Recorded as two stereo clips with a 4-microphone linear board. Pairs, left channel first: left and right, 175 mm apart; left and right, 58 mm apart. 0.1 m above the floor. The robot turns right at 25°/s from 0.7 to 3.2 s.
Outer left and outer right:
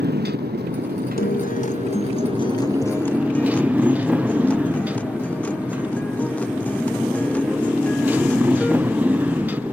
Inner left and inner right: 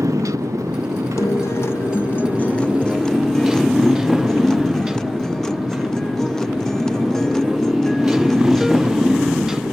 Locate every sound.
0.0 s a motorcycle: 70° right; by 9.7 s 10° right
1.2 s a guitar: 120° left; by 8.8 s 170° left